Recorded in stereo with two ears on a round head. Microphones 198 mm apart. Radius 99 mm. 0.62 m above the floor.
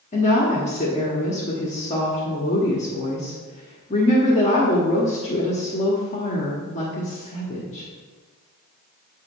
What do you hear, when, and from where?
0.1 s a woman speaking: 30° left (ahead or behind), 1.1 m